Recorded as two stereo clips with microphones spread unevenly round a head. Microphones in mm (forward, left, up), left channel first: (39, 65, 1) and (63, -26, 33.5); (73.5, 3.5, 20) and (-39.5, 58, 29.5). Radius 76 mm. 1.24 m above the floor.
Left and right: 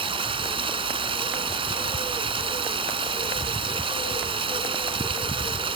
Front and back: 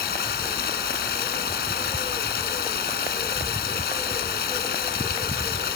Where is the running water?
50° right.